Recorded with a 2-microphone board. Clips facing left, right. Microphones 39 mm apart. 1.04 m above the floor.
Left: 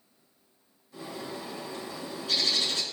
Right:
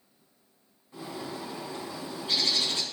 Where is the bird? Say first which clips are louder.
Right 1 dB; 25° right (ahead or behind), 4 m.